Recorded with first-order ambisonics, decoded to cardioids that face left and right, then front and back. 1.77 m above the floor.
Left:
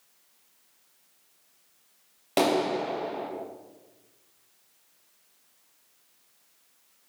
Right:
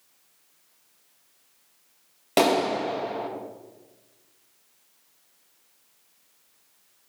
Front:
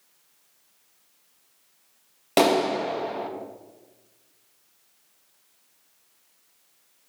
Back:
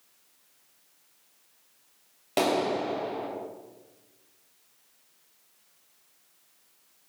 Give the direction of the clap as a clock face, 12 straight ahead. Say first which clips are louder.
Right 3 dB, front 5 dB; 1 o'clock.